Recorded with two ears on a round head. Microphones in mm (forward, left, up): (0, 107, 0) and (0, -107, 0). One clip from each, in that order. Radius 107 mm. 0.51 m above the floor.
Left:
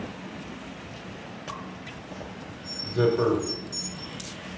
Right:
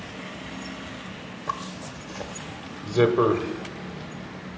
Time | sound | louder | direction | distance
1.5 | a zipper | right 8 dB | 50° right (ahead or behind) | 1.1 m